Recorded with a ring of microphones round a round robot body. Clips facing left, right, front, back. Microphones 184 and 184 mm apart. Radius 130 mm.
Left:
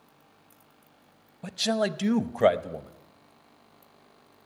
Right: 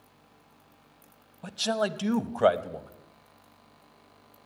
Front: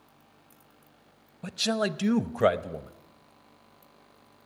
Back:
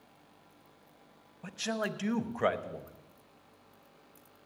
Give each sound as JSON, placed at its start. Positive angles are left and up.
{"t": 1.4, "sound": "a man speaking", "azimuth_deg": 20, "distance_m": 0.8}